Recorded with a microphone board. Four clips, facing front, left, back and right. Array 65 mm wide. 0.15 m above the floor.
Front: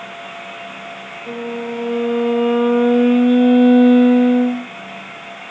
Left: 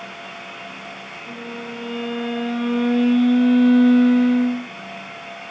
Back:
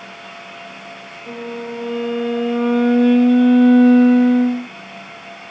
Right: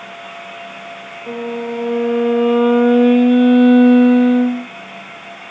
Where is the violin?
70° right, 3 m.